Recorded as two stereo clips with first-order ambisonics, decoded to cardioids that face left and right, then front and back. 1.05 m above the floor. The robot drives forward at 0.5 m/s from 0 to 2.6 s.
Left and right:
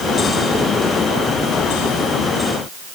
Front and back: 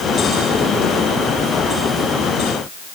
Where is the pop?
No pop in this recording.